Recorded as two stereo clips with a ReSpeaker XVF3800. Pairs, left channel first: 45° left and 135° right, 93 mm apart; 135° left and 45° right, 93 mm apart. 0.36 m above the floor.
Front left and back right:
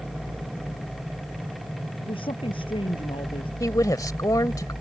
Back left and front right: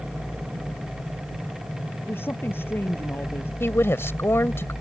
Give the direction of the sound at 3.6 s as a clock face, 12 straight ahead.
9 o'clock.